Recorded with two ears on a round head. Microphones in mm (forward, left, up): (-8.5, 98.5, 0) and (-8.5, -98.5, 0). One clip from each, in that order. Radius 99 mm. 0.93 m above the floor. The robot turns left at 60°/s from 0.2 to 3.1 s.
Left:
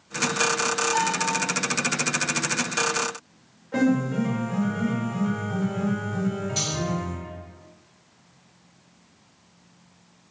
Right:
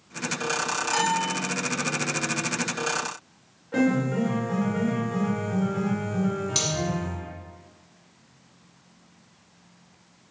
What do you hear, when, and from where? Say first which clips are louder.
0.9 s a bell: even; 20° left (ahead or behind), 2.5 m; by 1.3 s 5° right (ahead or behind), 2.5 m
3.7 s a piano: even; 5° right (ahead or behind), 1.9 m
6.5 s cutlery clinking: right 2 dB; 75° right (ahead or behind), 2.5 m